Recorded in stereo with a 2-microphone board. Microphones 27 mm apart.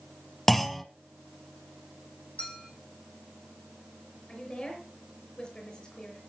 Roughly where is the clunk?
Centre.